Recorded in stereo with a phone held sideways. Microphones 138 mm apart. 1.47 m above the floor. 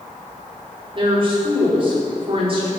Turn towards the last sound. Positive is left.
turn(degrees=-40)  # may be behind; listen again after turning